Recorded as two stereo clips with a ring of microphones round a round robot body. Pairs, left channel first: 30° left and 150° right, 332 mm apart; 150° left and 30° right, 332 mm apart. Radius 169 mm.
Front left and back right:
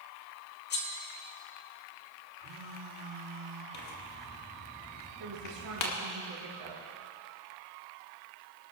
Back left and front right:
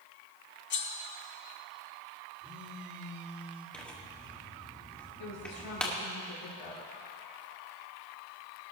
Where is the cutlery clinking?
90° left, 1.3 m.